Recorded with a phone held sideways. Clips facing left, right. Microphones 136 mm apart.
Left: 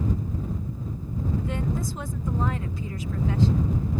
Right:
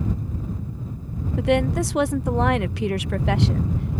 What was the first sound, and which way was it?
A woman speaking, 80° right.